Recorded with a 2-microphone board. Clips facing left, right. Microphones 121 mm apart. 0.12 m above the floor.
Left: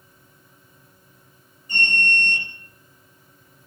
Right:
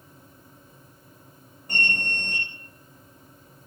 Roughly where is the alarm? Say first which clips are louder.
Left 4 dB; right.